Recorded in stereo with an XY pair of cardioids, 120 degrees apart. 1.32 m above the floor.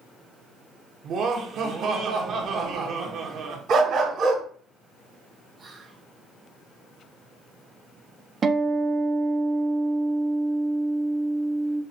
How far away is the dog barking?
About 2.5 m.